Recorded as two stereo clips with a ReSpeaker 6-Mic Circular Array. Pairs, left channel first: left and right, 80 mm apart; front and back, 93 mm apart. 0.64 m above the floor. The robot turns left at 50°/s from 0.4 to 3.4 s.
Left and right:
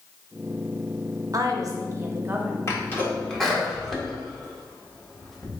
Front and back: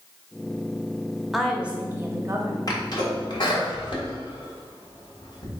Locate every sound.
1.3 s a woman speaking: 90° right, 0.8 m; by 2.6 s 155° right, 0.8 m
2.7 s a sneeze: 40° left, 1.6 m; by 5.5 s 5° left, 1.6 m